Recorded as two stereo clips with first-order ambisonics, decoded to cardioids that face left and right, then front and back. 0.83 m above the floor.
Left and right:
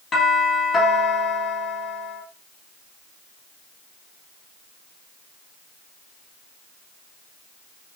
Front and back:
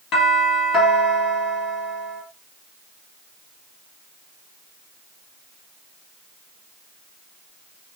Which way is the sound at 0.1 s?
20° left.